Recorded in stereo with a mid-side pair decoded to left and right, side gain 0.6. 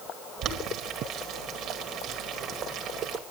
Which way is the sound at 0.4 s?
60° right.